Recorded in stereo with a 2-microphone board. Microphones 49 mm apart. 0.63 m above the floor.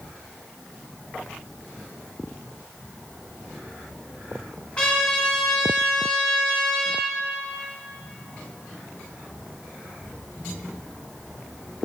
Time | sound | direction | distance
4.8 | a trumpet | 15° left (ahead or behind) | 3.5 m